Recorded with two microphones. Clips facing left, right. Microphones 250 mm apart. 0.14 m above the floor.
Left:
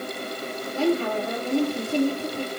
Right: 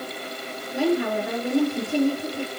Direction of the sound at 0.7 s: 15° right (ahead or behind).